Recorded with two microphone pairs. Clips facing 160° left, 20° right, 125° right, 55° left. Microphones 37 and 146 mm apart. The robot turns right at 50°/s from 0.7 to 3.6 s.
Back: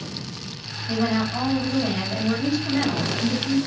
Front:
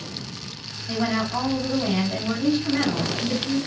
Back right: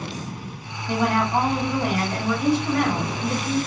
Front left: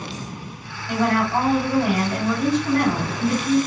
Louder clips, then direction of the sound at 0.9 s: Back 1 dB, front left 1 dB; 70° right.